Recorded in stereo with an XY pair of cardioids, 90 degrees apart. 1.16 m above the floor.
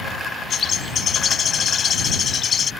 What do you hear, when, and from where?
0.5 s a bird: 50° left